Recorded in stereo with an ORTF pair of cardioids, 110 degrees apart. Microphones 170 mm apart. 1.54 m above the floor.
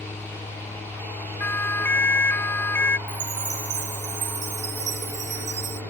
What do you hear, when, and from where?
0.0 s a fan: 15° left
1.4 s a siren: 15° left
3.1 s a chime: 45° right